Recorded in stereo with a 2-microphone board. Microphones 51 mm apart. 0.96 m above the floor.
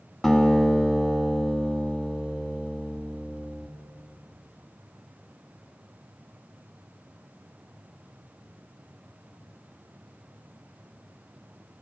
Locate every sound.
0.2 s a guitar: centre (ahead or behind), 1.0 m